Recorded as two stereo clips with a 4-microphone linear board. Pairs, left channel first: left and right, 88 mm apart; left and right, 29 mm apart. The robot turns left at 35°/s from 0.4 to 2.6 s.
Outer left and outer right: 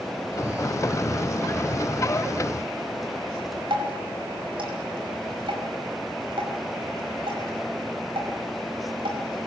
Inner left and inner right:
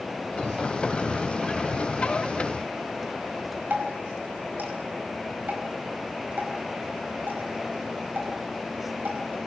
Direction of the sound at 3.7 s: 75° right (ahead or behind).